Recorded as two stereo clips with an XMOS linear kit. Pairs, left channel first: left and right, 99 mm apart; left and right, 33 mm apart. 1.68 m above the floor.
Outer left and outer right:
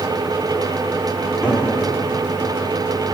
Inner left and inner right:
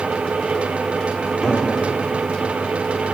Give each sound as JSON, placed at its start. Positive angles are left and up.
{"t": 1.2, "sound": "a cupboard door", "side_deg": -10, "distance_m": 5.0}